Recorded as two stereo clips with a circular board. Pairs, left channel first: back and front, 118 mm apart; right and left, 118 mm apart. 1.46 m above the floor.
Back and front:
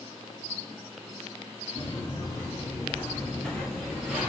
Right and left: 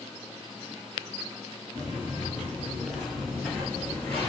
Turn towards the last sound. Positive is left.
turn(degrees=-55)